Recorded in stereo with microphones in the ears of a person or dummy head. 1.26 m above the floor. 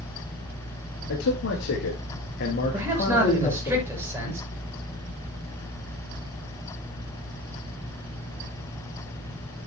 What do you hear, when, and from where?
1.1 s a man speaking: 85° left, 2 m; by 3.7 s 25° left (ahead or behind), 2 m
2.7 s a man speaking: 15° right (ahead or behind), 6.5 m